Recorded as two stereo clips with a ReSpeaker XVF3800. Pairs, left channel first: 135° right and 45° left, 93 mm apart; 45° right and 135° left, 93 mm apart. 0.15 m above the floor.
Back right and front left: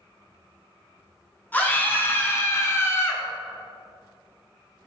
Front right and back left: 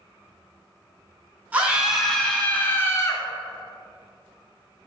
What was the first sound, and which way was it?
A scream, 175° right.